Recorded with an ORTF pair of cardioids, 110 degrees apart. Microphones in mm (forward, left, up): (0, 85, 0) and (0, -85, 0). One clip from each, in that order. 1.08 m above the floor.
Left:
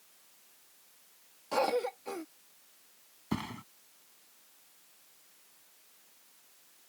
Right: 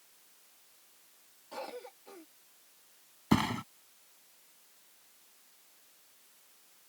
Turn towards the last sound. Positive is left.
turn(degrees=-50)